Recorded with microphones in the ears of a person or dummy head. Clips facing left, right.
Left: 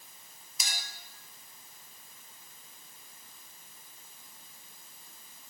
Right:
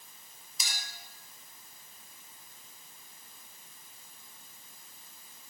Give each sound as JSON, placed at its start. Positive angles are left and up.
{"t": 0.6, "sound": "a clink", "side_deg": 55, "distance_m": 4.0}